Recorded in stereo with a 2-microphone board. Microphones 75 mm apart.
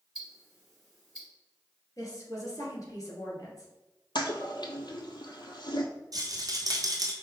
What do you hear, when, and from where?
0.1 s ticking: 5° right (ahead or behind), 1.8 m
2.0 s a woman speaking: 45° left (ahead or behind), 1.7 m
4.2 s a toilet flushing: 70° left (ahead or behind), 0.6 m
6.1 s a rattle: 55° right (ahead or behind), 0.9 m